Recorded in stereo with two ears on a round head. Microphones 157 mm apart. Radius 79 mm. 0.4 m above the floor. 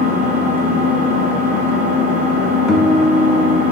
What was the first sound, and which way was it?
An engine running, 45° right (ahead or behind).